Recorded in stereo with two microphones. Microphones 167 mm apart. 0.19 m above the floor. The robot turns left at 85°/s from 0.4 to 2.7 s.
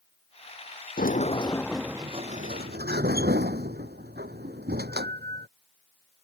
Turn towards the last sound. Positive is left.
turn(degrees=-80)